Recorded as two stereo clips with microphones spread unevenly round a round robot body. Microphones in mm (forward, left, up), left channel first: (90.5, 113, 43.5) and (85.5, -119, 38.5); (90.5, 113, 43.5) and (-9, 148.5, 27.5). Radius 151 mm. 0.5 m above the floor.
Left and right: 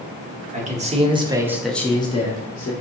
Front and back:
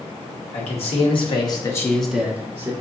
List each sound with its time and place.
0.5 s a man speaking: 35° right, 1.2 m; by 2.7 s 125° left, 0.9 m